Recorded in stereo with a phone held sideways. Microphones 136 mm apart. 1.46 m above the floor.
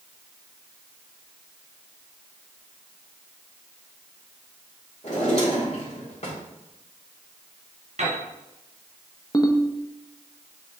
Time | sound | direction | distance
5.0 | a drawer | 55° left (ahead or behind) | 2.5 m
8.0 | a piano | 60° right (ahead or behind) | 3 m
9.3 | a ringtone | 25° left (ahead or behind) | 0.7 m